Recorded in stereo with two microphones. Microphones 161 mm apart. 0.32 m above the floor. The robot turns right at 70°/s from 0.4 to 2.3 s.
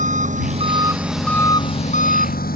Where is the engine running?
55° right; by 2.6 s 80° left.